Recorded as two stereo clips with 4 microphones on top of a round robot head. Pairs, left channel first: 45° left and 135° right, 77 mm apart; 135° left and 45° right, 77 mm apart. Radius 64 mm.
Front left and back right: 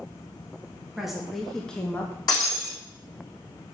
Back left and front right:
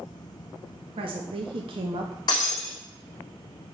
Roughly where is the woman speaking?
Ahead right.